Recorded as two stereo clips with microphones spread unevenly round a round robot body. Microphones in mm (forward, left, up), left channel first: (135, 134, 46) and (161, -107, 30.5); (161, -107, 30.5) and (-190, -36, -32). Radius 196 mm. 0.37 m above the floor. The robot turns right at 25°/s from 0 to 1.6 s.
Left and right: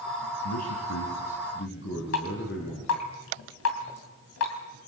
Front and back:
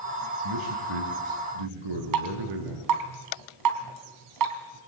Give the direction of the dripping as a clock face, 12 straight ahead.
8 o'clock.